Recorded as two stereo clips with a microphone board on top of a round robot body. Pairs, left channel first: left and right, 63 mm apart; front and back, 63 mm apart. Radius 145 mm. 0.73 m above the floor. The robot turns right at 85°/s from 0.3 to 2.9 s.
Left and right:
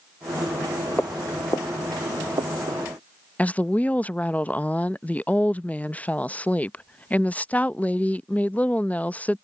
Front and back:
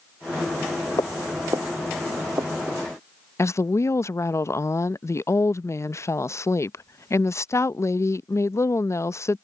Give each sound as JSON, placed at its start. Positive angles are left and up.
{"t": 1.0, "sound": "footsteps", "azimuth_deg": 30}
{"t": 3.4, "sound": "a woman speaking", "azimuth_deg": 30}